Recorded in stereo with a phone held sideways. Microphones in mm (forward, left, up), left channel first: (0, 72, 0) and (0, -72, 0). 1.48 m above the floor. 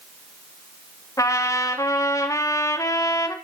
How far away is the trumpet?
About 3 m.